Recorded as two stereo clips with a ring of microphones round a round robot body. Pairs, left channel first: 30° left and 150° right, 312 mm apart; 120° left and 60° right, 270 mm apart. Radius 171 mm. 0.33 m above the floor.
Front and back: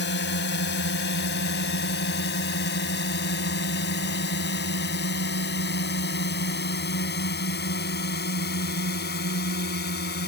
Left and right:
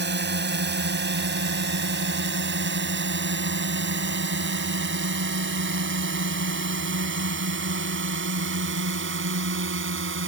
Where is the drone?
20° right; by 10.3 s 25° right.